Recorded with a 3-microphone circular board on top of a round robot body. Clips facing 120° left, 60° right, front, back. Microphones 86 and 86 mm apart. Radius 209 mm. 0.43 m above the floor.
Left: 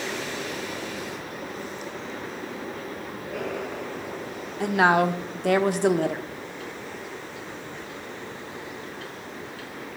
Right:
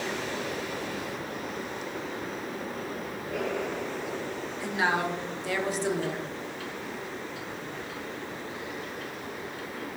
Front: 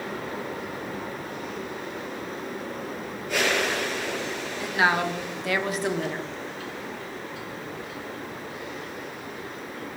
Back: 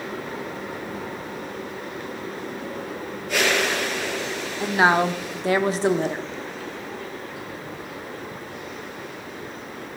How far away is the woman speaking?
About 1.4 m.